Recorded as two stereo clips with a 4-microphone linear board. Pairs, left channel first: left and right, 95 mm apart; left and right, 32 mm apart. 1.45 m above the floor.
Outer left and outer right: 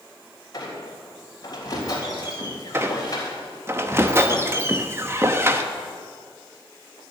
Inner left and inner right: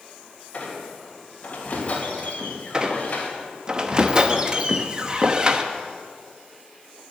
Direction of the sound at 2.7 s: 25° right (ahead or behind).